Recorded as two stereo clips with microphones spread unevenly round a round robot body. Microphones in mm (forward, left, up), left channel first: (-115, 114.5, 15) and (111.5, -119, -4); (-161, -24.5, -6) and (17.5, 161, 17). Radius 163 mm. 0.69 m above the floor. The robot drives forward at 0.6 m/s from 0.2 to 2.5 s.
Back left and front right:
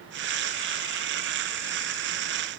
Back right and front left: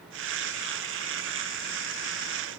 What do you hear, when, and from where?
Only background noise.